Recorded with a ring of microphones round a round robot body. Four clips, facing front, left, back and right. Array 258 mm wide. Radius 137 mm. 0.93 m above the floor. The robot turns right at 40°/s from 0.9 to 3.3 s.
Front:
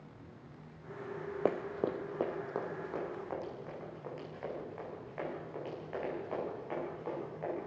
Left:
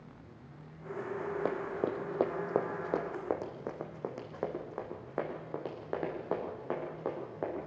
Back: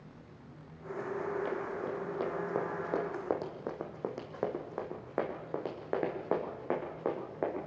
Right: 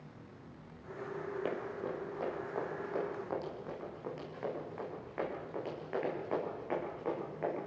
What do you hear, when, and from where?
1.4 s running footsteps: 25° left, 1.6 m; by 7.6 s 160° left, 6.5 m